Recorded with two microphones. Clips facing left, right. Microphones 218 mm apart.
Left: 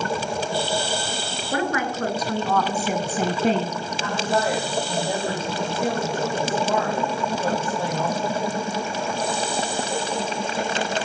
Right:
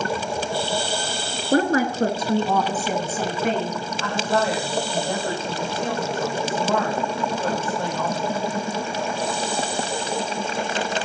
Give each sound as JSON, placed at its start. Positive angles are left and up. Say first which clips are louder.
{"t": 1.5, "sound": "a woman speaking", "louder": "right 6 dB", "side_deg": -45, "distance_m": 2.0}
{"t": 4.0, "sound": "a woman speaking", "louder": "right 1 dB", "side_deg": 10, "distance_m": 5.0}